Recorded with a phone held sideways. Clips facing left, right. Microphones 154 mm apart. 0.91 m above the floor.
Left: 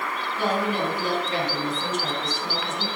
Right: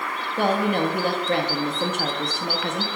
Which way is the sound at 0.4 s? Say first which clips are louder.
Right 4 dB; 65° right (ahead or behind).